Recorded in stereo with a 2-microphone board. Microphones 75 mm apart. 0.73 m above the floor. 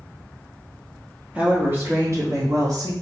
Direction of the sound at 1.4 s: 15° right (ahead or behind).